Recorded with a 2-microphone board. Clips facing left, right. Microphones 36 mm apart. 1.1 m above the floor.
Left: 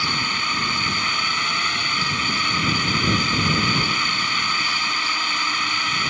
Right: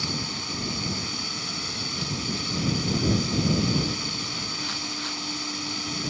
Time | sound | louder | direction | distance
0.0 | a drone | left 10 dB | 50° left (ahead or behind) | ?